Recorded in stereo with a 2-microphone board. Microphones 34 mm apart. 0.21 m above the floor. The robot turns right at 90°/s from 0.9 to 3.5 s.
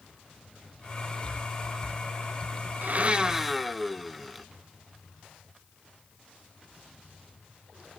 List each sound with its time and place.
2.8 s a blender: 65° right, 0.6 m; by 4.5 s straight ahead, 0.6 m